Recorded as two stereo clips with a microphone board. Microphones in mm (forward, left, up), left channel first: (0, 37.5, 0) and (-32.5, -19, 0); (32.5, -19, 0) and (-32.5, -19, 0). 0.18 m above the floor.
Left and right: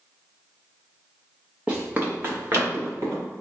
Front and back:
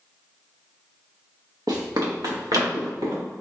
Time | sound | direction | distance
1.7 | running footsteps | 170° left | 1.3 m